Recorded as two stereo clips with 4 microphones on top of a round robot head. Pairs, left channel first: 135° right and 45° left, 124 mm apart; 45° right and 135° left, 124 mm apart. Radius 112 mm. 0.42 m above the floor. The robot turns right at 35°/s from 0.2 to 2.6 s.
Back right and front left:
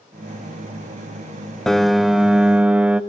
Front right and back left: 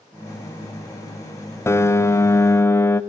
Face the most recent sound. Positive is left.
turn(degrees=-20)